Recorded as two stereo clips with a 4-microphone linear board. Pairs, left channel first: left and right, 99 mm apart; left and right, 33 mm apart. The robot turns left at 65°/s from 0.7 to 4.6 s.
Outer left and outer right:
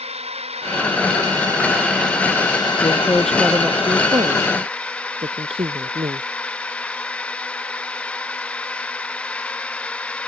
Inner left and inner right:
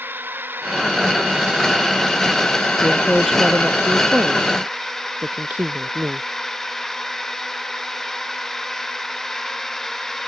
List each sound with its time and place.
0.0 s a drone: 95° right; by 10.3 s 10° left
2.8 s a woman speaking: 35° left; by 6.3 s 80° right